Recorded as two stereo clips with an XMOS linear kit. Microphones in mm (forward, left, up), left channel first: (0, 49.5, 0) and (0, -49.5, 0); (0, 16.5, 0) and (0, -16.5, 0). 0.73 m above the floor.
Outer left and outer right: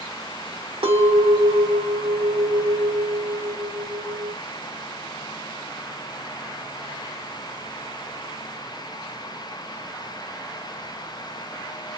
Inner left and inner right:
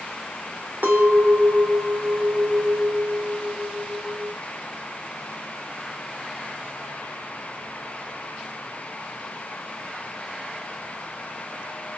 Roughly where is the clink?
Right.